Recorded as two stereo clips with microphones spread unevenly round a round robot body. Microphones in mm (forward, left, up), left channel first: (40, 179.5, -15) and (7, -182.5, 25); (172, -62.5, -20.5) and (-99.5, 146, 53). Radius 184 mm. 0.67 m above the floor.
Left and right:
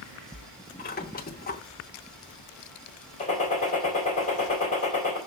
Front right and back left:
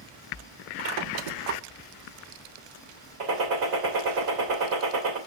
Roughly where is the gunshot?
Behind left.